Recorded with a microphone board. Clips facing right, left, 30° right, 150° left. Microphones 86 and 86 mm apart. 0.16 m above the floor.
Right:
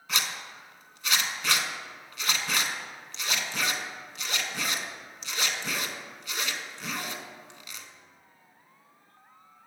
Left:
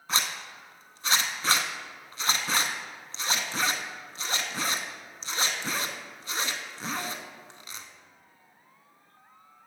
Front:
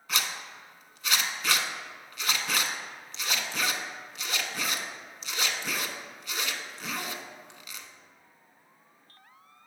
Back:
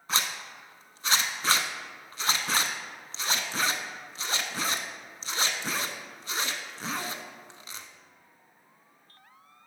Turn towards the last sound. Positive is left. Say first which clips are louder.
# left 2 dB, back 2 dB
turn(degrees=115)